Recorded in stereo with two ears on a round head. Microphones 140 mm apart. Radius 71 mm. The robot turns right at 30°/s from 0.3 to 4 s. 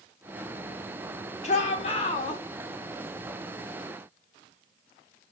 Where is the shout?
45° left (ahead or behind), 1.4 m; by 2.4 s 30° left (ahead or behind), 1.4 m.